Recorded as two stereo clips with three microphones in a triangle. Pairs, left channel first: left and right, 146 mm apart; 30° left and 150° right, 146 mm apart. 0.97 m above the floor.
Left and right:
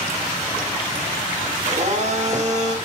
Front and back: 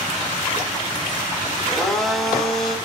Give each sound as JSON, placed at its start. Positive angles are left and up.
{"t": 1.7, "sound": "a blender", "azimuth_deg": -60, "distance_m": 1.9}